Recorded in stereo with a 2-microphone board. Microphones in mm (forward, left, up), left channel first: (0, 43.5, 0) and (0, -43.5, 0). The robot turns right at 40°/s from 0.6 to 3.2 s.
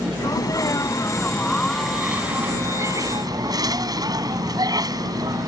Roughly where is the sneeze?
Behind left.